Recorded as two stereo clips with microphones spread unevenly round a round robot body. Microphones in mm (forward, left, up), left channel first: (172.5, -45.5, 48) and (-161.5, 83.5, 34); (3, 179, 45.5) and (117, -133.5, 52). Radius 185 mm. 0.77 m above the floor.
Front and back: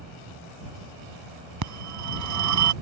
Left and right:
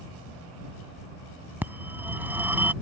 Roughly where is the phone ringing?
Behind right.